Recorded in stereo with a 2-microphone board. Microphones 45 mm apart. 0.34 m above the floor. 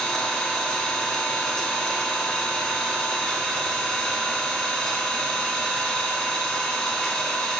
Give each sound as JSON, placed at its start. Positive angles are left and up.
{"t": 0.0, "sound": "an engine running", "side_deg": 10, "distance_m": 0.8}